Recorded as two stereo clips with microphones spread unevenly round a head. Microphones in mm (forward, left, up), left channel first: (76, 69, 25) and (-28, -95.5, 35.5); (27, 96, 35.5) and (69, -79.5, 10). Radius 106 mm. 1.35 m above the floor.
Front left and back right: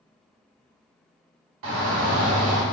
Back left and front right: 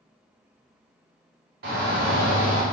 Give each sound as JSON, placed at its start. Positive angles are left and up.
{"t": 1.6, "sound": "a shout", "azimuth_deg": -115, "distance_m": 1.5}